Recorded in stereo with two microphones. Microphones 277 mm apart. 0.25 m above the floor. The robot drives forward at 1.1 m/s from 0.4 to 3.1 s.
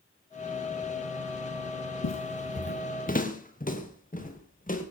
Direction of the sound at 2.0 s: 75° left (ahead or behind).